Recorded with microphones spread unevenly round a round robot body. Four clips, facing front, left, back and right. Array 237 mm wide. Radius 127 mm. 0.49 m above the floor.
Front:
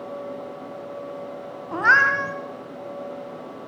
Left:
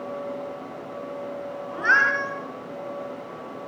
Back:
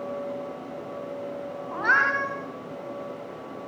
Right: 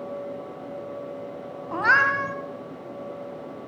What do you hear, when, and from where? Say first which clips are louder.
1.7 s a cat meowing: right 1 dB, front 5 dB; 35° right, 2.5 m